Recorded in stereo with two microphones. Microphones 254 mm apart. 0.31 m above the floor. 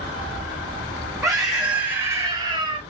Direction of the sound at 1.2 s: Centre (ahead or behind).